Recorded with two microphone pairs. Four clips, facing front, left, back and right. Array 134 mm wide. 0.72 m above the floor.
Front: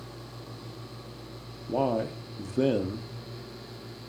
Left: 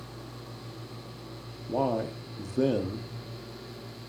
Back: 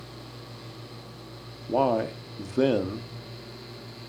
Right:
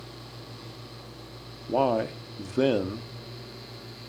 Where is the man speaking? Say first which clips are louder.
Right 4 dB, back 3 dB; 140° right, 1.0 m.